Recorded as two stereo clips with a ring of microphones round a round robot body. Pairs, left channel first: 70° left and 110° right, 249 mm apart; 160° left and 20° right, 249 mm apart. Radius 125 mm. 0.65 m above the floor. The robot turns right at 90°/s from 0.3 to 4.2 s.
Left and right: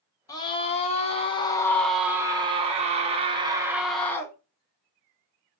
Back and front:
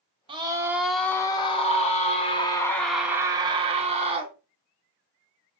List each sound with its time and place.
0.3 s a scream: 10° left, 0.6 m; by 4.3 s 5° left, 0.6 m